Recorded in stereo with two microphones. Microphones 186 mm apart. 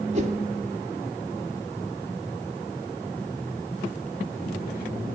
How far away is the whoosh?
About 0.7 m.